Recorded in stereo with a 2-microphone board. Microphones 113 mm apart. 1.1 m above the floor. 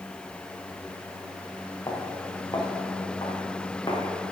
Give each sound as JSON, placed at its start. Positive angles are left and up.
{"t": 1.9, "sound": "footsteps", "side_deg": 35, "distance_m": 3.0}